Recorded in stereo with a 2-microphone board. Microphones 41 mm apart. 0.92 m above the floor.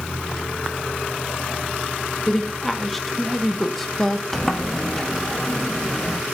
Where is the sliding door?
10° left (ahead or behind), 0.9 m.